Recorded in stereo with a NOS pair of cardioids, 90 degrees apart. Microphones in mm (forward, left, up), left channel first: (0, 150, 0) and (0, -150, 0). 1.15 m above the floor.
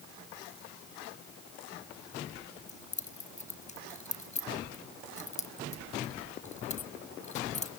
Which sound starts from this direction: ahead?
Keys jangling, at 2.7 s.